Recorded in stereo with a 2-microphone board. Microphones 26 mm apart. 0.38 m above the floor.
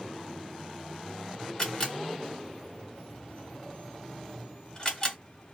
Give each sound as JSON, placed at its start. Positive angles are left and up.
{"t": 1.6, "sound": "a camera shutter", "side_deg": 25, "distance_m": 1.6}